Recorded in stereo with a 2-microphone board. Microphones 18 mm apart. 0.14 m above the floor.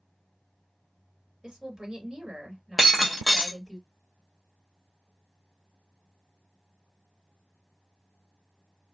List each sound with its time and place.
1.4 s a woman speaking: 40° right (ahead or behind), 2 m
2.8 s breaking glass: 5° right (ahead or behind), 0.8 m